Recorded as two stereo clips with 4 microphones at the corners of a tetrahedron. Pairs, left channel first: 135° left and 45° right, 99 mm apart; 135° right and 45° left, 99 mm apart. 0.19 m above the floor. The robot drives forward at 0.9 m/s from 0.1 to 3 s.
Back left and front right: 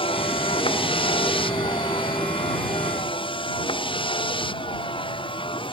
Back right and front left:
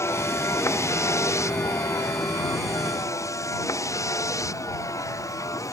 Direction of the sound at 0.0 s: 160° left.